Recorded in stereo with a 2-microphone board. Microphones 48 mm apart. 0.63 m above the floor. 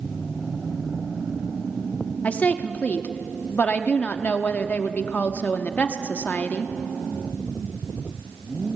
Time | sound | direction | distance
2.2 | a woman speaking | 30° left (ahead or behind) | 1.1 m